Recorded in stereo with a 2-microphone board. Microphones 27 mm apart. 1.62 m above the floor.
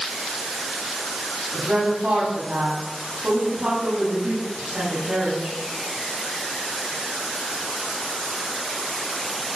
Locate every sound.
1.5 s a woman speaking: 50° right (ahead or behind), 9 m